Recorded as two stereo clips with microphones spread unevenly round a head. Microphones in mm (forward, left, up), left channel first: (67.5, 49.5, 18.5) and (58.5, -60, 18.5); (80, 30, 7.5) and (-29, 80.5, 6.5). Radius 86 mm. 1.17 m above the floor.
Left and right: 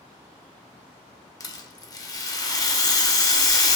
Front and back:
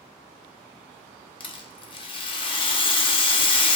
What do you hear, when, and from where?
1.4 s a rattle: 25° left, 0.5 m